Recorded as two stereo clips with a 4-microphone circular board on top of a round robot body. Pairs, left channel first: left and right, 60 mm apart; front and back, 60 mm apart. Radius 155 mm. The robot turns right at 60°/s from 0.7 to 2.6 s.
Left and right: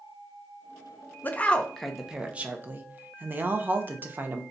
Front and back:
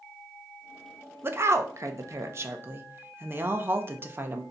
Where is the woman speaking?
140° left, 0.8 m; by 4.4 s 140° right, 0.8 m.